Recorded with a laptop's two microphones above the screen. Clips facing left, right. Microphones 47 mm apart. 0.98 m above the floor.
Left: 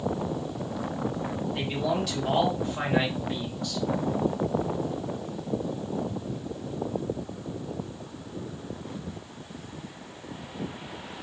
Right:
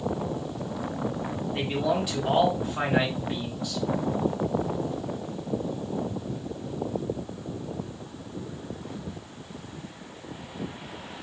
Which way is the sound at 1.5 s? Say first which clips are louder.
Right 3 dB; 15° right (ahead or behind).